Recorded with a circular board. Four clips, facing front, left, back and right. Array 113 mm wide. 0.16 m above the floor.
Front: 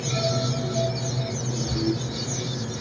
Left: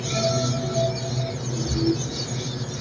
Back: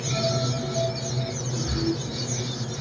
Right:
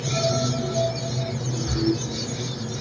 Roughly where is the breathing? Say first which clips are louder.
Even, front 1 dB; behind right.